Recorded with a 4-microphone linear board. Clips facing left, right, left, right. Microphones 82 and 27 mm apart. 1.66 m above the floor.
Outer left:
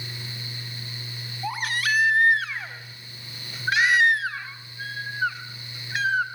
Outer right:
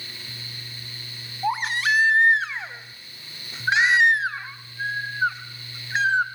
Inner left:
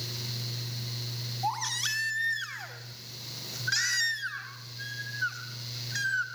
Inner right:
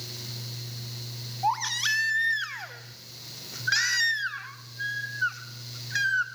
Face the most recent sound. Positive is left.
turn(degrees=-20)  # may be behind; listen again after turning